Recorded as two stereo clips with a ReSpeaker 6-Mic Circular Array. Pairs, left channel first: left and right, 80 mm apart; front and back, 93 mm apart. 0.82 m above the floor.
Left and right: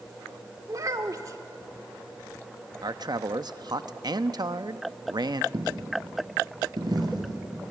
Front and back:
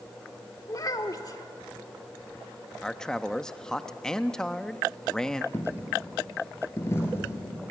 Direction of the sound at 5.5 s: 60° right.